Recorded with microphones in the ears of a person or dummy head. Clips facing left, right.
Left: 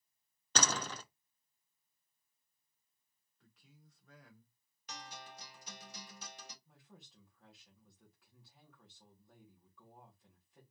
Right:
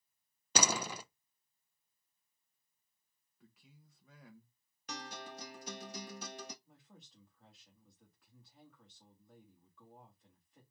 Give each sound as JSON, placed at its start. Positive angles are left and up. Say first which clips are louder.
{"t": 0.6, "sound": "a door slam", "louder": "right 2 dB", "side_deg": -10, "distance_m": 0.6}
{"t": 3.4, "sound": "a man speaking", "louder": "right 2 dB", "side_deg": -5, "distance_m": 1.3}
{"t": 4.9, "sound": "a guitar", "louder": "right 5 dB", "side_deg": -50, "distance_m": 1.0}
{"t": 6.7, "sound": "a woman speaking", "louder": "even", "side_deg": 0, "distance_m": 2.5}